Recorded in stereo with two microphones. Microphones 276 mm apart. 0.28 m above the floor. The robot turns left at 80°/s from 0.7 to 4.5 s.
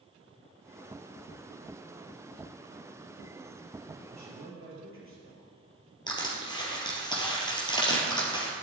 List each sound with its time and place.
4.1 s a man speaking: 95° right, 5.5 m; by 5.5 s 130° right, 5.5 m
6.1 s crushing: 15° left (ahead or behind), 3 m